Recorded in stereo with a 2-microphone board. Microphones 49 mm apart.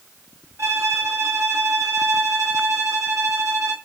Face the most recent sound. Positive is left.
turn(degrees=-70)  # may be behind; listen again after turning